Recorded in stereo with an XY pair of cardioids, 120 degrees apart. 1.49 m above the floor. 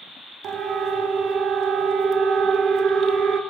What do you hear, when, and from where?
0.4 s a siren: 60° right, 2.5 m